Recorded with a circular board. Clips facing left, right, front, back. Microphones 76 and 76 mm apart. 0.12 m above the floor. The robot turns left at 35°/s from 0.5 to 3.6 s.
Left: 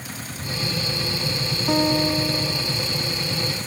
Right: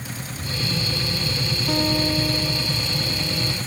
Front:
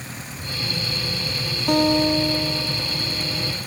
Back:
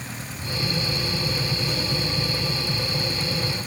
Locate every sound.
1.7 s a guitar: 25° left; by 3.5 s 40° right